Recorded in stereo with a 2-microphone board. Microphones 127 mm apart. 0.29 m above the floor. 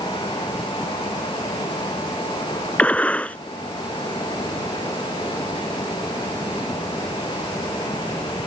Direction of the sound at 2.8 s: 10° left (ahead or behind).